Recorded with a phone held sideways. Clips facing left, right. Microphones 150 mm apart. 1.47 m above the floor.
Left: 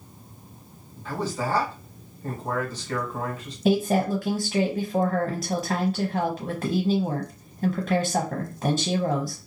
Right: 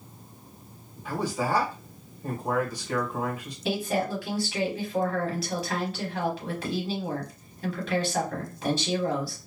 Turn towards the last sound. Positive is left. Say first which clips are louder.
# left 6 dB
turn(degrees=35)  # may be behind; listen again after turning